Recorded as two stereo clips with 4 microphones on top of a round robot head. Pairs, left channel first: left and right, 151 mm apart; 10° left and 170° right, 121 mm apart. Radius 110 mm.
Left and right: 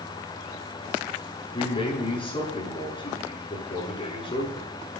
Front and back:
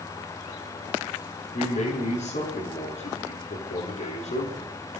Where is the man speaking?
35° left, 8 m.